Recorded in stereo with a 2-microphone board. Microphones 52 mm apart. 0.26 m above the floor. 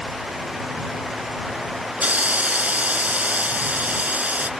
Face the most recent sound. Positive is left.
turn(degrees=-30)  # may be behind; listen again after turning